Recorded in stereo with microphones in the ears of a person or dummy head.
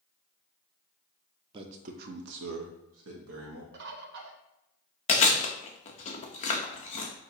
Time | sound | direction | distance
1.5 | a man speaking | 30° right (ahead or behind) | 0.6 m
3.7 | a bird | 65° right (ahead or behind) | 0.7 m
5.1 | chewing | 40° left (ahead or behind) | 0.7 m